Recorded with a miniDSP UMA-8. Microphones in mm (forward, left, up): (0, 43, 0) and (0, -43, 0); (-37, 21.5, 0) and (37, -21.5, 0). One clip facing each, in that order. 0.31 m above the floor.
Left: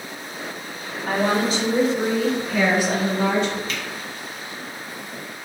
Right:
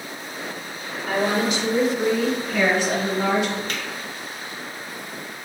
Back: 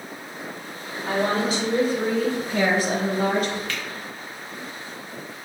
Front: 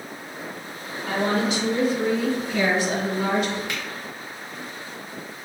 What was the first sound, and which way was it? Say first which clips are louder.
A woman speaking: left 1 dB, even; 105° left.